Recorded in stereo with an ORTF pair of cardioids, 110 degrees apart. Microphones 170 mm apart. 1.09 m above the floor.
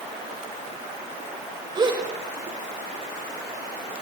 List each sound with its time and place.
1.8 s a gasp: 30° right, 6 m